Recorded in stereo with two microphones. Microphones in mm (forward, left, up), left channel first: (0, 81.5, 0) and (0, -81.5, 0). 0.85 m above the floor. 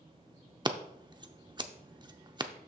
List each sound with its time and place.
0.7 s scissors: 25° right (ahead or behind), 0.5 m